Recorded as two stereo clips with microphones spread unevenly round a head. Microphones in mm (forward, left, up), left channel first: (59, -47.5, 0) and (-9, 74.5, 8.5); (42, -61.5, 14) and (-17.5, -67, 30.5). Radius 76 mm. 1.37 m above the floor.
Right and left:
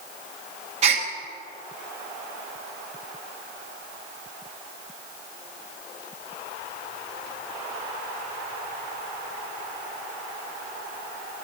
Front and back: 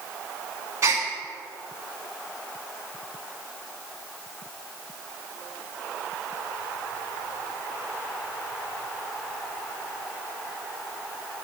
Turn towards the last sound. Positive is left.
turn(degrees=155)